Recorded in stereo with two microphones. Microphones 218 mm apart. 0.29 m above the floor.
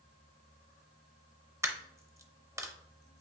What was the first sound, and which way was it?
A dropped coin, 15° right (ahead or behind).